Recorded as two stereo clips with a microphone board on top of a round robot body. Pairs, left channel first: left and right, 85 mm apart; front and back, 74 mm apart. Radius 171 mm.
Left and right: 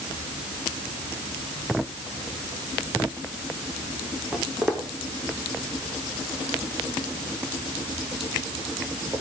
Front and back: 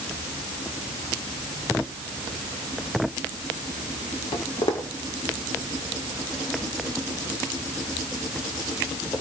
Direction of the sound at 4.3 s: 5° right.